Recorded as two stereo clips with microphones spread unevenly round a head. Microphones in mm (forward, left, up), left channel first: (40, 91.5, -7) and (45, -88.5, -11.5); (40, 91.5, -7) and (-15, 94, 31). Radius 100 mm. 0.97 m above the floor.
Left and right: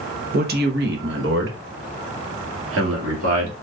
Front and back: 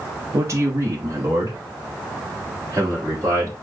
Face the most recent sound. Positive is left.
turn(degrees=-100)